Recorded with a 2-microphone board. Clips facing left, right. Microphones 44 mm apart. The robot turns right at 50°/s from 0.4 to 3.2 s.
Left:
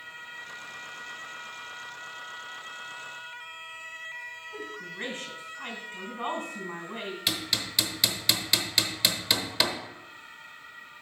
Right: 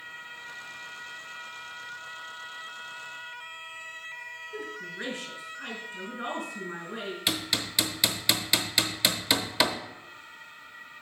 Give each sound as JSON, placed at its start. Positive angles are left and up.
{"t": 4.5, "sound": "a woman speaking", "side_deg": 55, "distance_m": 3.0}
{"t": 7.3, "sound": "hammering", "side_deg": -5, "distance_m": 1.0}